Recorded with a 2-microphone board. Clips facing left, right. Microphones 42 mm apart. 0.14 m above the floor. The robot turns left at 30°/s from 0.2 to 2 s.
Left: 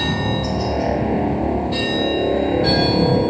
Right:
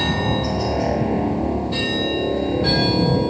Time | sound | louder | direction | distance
0.0 | a helicopter | even | 10° right (ahead or behind) | ?